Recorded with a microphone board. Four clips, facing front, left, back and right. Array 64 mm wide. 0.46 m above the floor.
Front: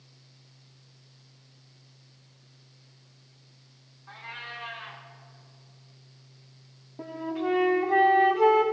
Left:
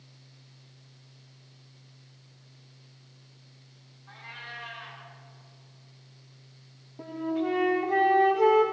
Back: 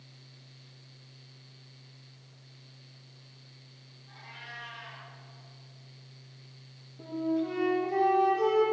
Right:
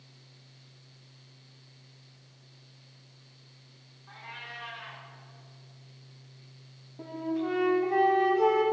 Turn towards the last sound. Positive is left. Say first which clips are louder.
# left 2 dB, back 1 dB
turn(degrees=10)